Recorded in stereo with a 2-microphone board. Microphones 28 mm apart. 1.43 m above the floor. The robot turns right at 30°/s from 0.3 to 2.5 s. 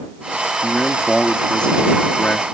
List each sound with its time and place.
0.6 s a man speaking: 10° left; by 2.4 s 65° left